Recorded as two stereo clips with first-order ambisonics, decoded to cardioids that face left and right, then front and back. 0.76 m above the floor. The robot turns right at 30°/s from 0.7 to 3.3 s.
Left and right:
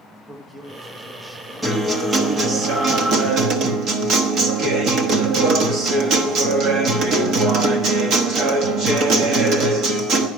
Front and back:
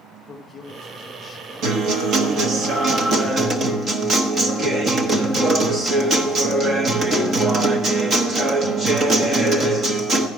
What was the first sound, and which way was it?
A man speaking, 30° right.